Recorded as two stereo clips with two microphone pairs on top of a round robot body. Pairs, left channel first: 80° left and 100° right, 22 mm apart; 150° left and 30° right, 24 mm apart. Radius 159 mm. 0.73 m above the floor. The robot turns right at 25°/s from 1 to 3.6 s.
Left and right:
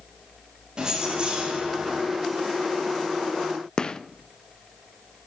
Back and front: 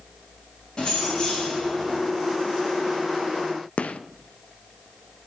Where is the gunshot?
130° left, 0.8 m.